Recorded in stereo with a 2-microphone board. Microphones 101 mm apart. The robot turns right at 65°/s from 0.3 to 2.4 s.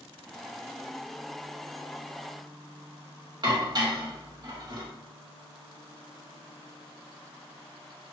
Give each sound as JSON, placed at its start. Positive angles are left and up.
{"t": 3.4, "sound": "dishes clattering", "side_deg": -45, "distance_m": 0.8}